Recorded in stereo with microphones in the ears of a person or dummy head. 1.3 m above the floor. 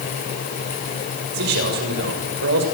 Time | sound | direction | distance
1.3 | a man speaking | 75° right (ahead or behind) | 6.5 m